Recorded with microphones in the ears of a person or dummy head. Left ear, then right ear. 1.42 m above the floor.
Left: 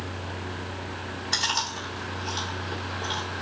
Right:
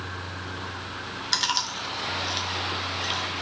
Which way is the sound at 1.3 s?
20° right (ahead or behind).